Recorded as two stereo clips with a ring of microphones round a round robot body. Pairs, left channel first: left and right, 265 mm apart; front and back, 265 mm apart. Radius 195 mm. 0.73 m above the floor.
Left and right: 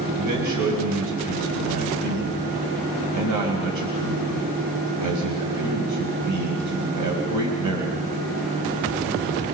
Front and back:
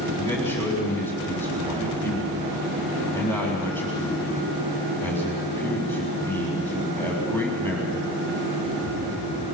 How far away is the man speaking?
About 4 m.